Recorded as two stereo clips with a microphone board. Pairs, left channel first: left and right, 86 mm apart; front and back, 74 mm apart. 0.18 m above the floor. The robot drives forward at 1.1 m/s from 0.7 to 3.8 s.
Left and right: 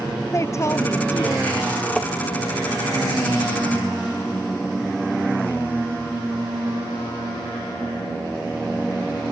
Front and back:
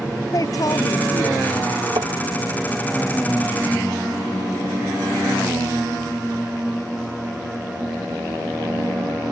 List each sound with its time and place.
0.3 s a woman speaking: 35° left; by 1.5 s 40° left
2.0 s tapping: 175° left; by 2.1 s straight behind